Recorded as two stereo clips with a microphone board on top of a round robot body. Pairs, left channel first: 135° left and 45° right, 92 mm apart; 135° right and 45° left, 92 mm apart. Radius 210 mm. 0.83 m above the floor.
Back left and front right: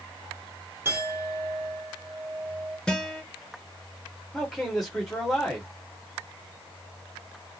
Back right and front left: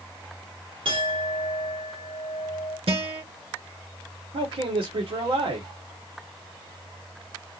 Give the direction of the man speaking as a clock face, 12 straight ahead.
10 o'clock.